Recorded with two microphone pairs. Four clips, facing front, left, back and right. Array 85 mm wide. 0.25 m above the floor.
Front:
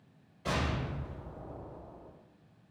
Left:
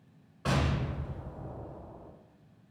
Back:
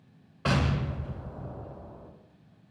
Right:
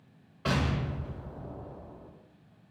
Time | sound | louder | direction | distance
0.5 | an explosion | right 1 dB, back 5 dB | straight behind | 0.6 m